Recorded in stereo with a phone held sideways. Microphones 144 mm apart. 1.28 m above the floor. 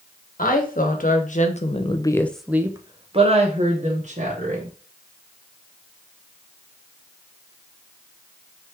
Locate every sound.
0.4 s a woman speaking: 75° left (ahead or behind), 1.4 m; by 4.7 s 65° right (ahead or behind), 1.8 m